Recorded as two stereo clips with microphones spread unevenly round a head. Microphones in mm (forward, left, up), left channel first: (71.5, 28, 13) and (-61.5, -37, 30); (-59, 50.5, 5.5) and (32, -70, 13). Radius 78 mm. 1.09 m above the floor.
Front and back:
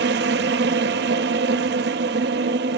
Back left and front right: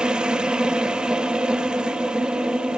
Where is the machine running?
140° right, 1.0 m.